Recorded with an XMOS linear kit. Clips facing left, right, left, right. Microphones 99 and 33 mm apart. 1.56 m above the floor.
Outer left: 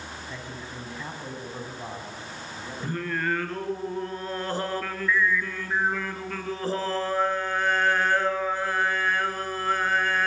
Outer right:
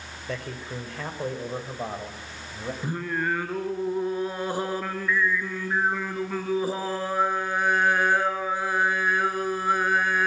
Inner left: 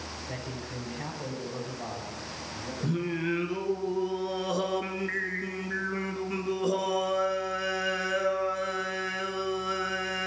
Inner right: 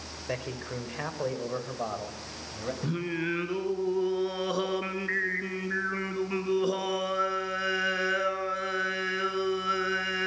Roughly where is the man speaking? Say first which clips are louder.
Outer right 4 dB, inner right 7 dB; right.